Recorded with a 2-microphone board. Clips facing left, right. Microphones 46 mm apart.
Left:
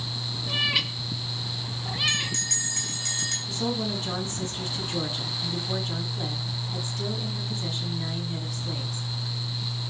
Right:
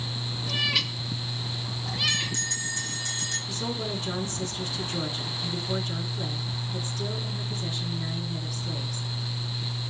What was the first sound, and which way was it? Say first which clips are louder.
A cat meowing: left 1 dB; 10° left (ahead or behind).